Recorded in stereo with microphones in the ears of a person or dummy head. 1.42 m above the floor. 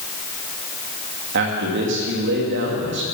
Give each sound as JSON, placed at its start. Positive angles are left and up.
{"t": 1.3, "sound": "a man speaking", "side_deg": -65, "distance_m": 2.5}